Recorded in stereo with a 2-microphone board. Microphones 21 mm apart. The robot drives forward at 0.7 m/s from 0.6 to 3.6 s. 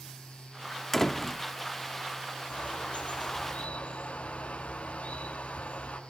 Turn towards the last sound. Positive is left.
turn(degrees=80)